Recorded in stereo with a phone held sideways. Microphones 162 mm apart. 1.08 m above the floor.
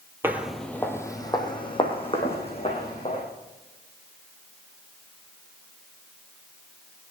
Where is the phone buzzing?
I don't hear a phone buzzing.